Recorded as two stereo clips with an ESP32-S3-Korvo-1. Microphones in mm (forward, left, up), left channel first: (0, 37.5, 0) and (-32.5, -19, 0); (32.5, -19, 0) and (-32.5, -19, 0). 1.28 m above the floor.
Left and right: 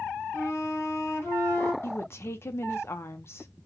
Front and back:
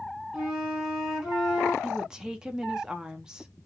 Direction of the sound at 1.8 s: 105° left.